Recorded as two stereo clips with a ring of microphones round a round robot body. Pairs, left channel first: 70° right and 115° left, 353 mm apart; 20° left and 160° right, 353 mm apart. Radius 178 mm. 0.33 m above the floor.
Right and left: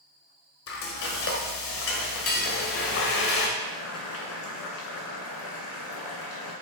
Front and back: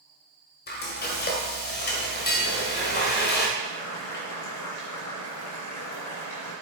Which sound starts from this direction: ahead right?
Frying, at 0.7 s.